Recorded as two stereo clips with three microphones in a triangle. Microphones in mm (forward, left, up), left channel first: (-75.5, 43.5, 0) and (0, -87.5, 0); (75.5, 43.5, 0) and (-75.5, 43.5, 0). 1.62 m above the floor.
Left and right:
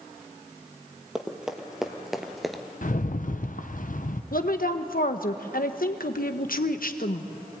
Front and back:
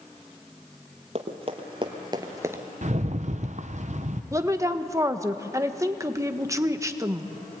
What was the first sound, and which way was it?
Running footsteps, 145° right.